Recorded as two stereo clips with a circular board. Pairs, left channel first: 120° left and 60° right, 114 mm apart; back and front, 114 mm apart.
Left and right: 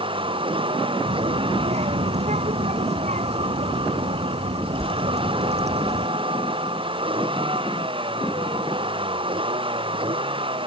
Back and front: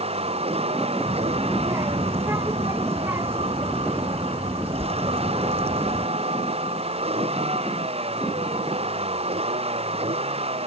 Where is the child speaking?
65° right.